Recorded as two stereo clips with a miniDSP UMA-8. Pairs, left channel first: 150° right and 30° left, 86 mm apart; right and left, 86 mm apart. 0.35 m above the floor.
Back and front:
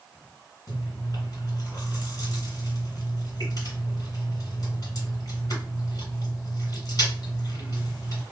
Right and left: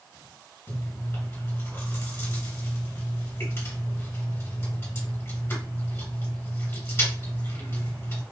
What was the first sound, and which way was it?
Chewing, 140° right.